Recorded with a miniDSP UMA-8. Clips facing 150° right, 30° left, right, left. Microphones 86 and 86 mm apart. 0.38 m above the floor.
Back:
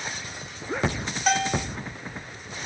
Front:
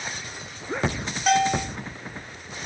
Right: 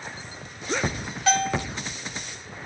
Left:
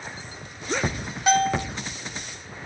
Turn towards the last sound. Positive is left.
turn(degrees=115)